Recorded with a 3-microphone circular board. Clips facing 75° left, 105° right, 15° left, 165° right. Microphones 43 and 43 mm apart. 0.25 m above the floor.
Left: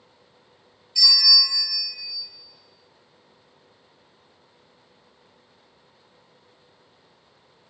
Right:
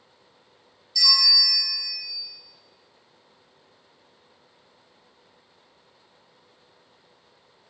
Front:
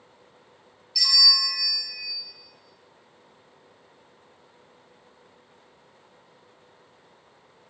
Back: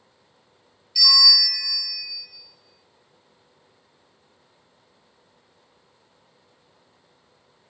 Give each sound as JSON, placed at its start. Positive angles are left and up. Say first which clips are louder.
{"t": 0.9, "sound": "a bell", "louder": "left 2 dB, back 4 dB", "azimuth_deg": 110, "distance_m": 1.2}